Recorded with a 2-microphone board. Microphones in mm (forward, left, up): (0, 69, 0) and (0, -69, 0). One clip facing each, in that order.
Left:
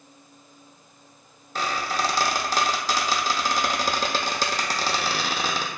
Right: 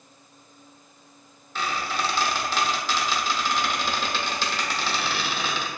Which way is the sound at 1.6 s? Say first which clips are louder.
Left 2 dB; 45° left (ahead or behind).